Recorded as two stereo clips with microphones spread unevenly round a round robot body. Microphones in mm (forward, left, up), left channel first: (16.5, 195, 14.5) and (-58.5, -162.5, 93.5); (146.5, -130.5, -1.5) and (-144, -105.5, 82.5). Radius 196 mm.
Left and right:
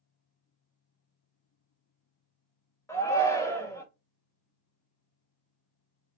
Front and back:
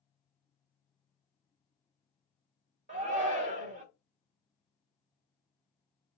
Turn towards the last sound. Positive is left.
turn(degrees=105)